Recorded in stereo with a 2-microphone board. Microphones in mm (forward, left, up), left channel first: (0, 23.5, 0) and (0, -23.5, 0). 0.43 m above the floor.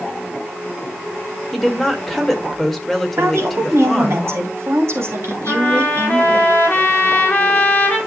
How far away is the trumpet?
About 5 m.